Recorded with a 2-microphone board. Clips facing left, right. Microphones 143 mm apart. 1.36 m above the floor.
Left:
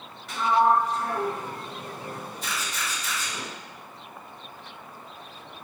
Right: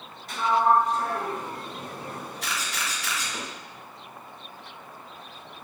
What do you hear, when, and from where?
0.3 s a sliding door: 40° right (ahead or behind), 1.6 m
2.4 s a camera shutter: 75° right (ahead or behind), 0.6 m